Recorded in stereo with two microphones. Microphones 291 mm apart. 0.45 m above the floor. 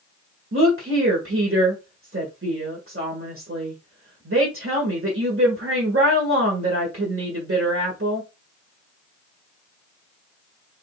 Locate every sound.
0.5 s a woman speaking: 50° right (ahead or behind), 1.6 m